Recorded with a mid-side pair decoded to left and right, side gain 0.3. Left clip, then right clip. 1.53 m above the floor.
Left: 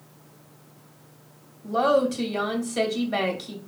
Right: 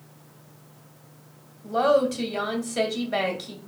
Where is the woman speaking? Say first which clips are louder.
Even; 5° right, 2.0 m.